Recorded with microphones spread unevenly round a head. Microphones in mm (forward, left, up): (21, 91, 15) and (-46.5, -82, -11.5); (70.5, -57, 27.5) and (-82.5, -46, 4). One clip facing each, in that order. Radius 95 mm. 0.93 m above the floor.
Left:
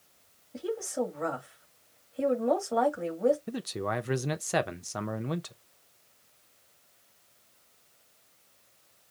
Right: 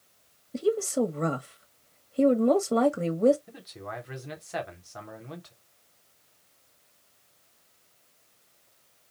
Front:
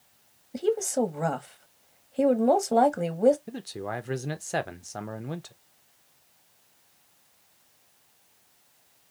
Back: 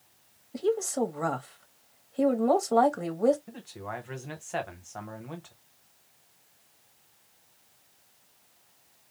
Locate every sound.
0.5 s a woman speaking: 75° right, 1.6 m
3.5 s a man speaking: 50° left, 0.7 m